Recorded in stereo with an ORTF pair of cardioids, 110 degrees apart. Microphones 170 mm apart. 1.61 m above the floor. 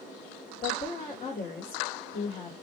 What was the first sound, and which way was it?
A woman speaking, 40° left.